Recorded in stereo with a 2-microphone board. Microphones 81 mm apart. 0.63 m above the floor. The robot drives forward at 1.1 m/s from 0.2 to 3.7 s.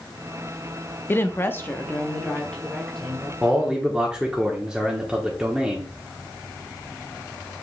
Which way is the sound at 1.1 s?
25° left (ahead or behind).